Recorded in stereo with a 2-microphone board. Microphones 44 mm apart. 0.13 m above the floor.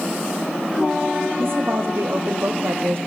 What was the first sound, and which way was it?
A woman speaking, 65° right (ahead or behind).